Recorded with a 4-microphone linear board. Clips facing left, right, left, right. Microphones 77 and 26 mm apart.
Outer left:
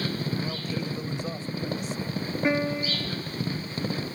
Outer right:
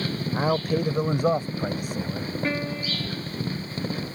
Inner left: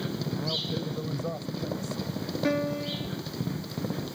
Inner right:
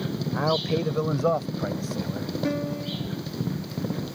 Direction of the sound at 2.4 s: 20° left (ahead or behind).